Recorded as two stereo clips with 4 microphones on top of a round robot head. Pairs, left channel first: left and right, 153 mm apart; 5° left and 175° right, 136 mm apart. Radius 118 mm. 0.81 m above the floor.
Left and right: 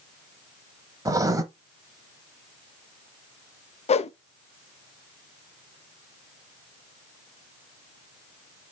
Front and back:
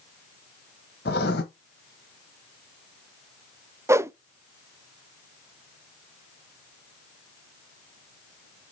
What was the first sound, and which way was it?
Writing, 20° right.